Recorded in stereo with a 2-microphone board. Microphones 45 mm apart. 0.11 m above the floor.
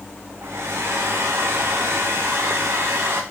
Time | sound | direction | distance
0.4 | a hair dryer | 75° right (ahead or behind) | 1.9 m